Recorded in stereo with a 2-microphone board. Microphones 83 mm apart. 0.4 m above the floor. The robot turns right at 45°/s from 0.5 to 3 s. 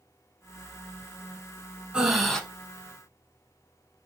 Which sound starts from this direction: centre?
Breathing, at 1.9 s.